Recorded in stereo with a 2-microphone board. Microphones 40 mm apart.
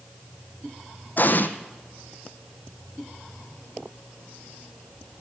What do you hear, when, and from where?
1.2 s an explosion: 50° left (ahead or behind), 0.9 m